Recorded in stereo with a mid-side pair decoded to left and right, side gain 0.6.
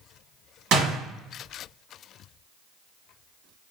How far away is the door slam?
About 1.3 m.